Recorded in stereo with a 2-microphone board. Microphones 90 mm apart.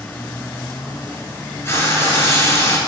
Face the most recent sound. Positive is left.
turn(degrees=30)  # may be behind; listen again after turning